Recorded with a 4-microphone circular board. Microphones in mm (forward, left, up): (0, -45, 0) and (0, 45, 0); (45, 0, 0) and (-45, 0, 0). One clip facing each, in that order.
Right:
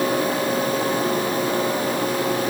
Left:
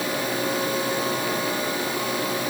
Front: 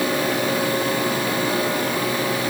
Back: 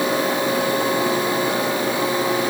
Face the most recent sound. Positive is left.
No sound to turn to.